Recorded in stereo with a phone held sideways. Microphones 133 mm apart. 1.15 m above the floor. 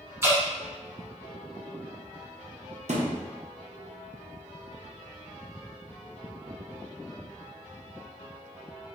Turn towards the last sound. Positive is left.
turn(degrees=-60)  # may be behind; listen again after turning